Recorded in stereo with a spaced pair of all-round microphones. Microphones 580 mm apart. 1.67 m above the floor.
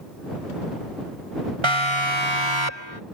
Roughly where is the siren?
Right.